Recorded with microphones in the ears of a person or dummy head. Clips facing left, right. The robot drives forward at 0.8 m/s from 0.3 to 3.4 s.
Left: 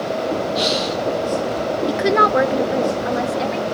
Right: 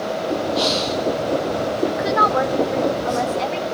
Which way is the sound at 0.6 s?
15° left (ahead or behind).